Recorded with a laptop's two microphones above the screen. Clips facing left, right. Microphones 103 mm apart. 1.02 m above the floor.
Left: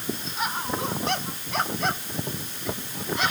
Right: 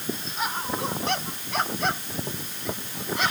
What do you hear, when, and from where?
Only background noise.